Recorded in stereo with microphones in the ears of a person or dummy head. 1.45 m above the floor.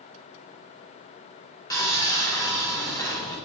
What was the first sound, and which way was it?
Sawing, 15° left (ahead or behind).